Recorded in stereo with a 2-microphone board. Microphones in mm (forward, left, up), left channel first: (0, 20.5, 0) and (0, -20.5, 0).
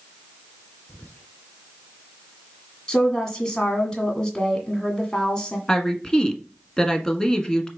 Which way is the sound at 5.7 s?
15° left (ahead or behind).